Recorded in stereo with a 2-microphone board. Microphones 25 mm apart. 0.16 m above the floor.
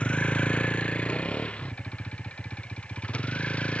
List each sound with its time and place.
0.0 s a vehicle: 50° left (ahead or behind); by 3.8 s 55° left (ahead or behind)